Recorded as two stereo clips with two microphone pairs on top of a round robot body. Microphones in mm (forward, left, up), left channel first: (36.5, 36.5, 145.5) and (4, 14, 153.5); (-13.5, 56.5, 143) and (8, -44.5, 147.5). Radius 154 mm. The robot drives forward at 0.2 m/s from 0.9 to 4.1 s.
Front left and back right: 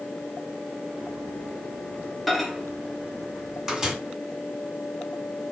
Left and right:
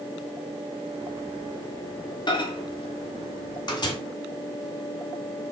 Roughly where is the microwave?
Behind left.